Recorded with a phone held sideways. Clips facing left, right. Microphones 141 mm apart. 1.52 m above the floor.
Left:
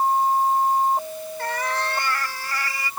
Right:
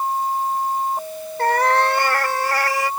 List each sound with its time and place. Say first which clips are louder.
1.4 s a cat meowing: right 10 dB; 60° right (ahead or behind); by 2.9 s 70° right (ahead or behind)